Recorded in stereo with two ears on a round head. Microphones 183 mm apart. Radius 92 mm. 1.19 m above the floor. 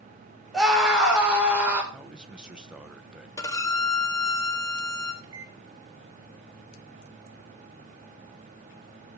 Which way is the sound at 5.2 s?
60° right (ahead or behind).